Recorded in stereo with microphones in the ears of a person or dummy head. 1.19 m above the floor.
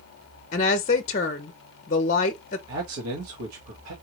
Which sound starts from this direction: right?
A man speaking, at 2.7 s.